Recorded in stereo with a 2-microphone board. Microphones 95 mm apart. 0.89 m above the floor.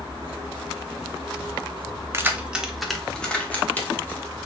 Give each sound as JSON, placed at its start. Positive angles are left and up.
{"t": 2.1, "sound": "keys jangling", "side_deg": -25, "distance_m": 0.7}